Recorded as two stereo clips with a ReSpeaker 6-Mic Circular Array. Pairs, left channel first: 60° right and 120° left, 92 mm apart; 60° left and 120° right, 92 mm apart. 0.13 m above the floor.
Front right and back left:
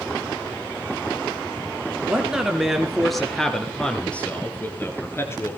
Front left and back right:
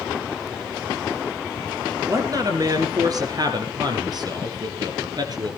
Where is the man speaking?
160° right, 3 m; by 5.6 s 105° right, 2.5 m.